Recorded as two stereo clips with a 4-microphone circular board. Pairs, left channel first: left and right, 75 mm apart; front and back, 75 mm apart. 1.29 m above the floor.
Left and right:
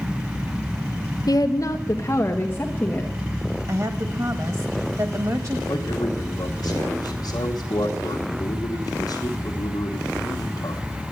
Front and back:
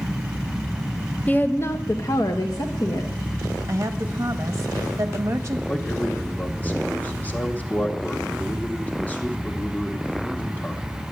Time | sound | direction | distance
1.3 | a woman speaking | 65° left | 0.7 m
3.7 | a woman speaking | 130° right | 1.4 m
5.7 | a man speaking | 65° left | 1.3 m